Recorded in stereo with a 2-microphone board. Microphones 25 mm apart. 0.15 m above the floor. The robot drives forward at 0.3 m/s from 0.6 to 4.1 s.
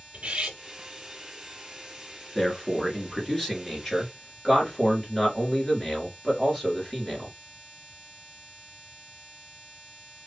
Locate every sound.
0.1 s cutlery clinking: 45° right (ahead or behind), 1.3 m
2.4 s a man speaking: 5° left (ahead or behind), 2.0 m; by 7.3 s centre (ahead or behind), 2.5 m